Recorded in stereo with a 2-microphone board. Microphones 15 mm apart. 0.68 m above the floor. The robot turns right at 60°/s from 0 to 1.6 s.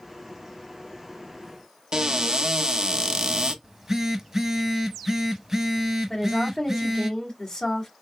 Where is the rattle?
I don't hear a rattle.